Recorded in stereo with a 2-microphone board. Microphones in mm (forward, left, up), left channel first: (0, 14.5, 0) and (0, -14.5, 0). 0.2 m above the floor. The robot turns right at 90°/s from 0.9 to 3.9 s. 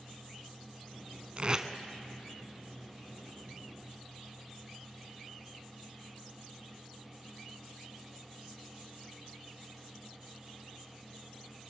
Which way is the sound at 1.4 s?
40° right (ahead or behind).